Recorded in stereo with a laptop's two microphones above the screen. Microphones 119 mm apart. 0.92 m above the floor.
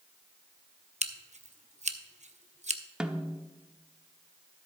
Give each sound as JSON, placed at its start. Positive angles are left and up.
{"t": 1.0, "sound": "scissors", "side_deg": -75, "distance_m": 0.6}
{"t": 3.0, "sound": "a snare drum", "side_deg": -5, "distance_m": 0.8}